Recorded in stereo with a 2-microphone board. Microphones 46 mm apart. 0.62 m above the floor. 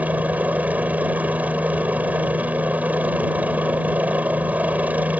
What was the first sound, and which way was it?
A helicopter, 35° right (ahead or behind).